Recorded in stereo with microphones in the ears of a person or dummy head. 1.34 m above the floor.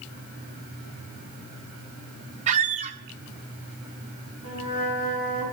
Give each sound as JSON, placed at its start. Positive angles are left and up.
{"t": 2.5, "sound": "a squeak", "side_deg": -35, "distance_m": 0.8}
{"t": 4.4, "sound": "a flute", "side_deg": -35, "distance_m": 7.5}